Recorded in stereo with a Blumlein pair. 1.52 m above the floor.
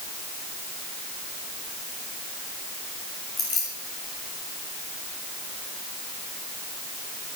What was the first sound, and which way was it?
Keys jangling, 25° left.